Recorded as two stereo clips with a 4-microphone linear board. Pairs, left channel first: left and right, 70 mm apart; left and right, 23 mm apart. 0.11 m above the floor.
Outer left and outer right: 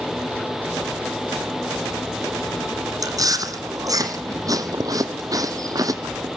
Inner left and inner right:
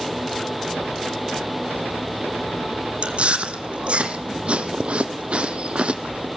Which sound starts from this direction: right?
Chewing, at 3.0 s.